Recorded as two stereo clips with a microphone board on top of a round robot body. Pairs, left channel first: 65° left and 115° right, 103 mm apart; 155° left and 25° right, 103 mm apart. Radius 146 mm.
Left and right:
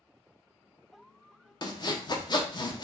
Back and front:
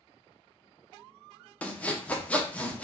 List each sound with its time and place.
1.6 s sawing: 85° left, 0.7 m